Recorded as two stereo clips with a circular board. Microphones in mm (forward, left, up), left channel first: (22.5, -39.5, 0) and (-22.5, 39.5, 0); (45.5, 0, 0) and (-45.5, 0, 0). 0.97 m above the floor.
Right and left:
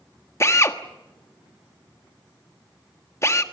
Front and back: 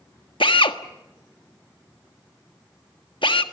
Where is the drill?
5° right, 1.4 m.